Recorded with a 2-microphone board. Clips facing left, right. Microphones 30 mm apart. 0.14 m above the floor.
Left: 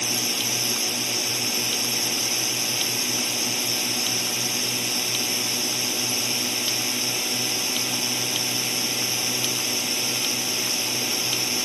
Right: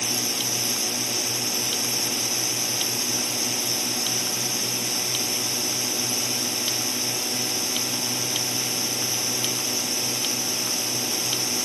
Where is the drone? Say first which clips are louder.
Left 1 dB; 25° left (ahead or behind).